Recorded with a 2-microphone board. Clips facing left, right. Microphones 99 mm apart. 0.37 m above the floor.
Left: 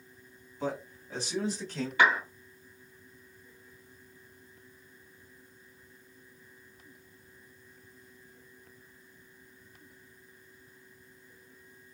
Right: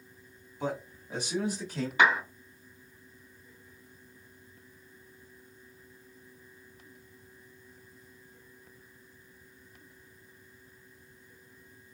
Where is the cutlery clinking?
No cutlery clinking in this recording.